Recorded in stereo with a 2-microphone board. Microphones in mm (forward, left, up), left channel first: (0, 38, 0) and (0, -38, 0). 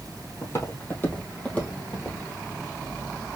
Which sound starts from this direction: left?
Footsteps, at 0.4 s.